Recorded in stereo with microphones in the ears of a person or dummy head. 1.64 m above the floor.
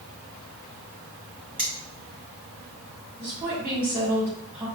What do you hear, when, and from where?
1.6 s cutlery clinking: 5° left (ahead or behind), 0.9 m
3.2 s a woman speaking: 15° right (ahead or behind), 2 m